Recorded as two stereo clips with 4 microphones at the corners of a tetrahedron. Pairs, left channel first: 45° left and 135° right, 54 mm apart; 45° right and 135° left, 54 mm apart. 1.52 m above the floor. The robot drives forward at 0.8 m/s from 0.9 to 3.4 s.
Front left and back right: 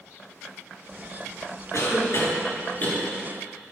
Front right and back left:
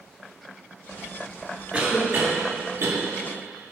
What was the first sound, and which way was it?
A cough, 70° left.